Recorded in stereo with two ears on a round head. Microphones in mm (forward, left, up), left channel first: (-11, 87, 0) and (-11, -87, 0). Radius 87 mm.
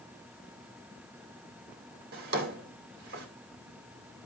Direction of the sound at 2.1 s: 55° right (ahead or behind).